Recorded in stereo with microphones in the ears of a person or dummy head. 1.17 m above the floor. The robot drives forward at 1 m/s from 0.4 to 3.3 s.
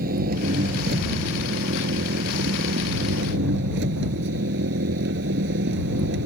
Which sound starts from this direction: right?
An engine running, at 0.0 s.